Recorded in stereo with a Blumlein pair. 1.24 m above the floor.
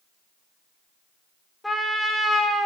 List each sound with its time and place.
1.6 s a trumpet: 5° left, 1.2 m